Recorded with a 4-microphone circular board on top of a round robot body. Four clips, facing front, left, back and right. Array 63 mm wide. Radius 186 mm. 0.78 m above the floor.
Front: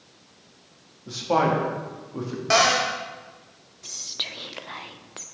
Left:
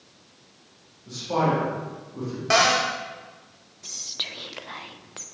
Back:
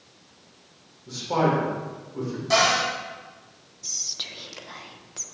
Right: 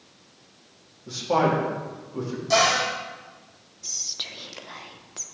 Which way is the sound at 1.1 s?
25° right.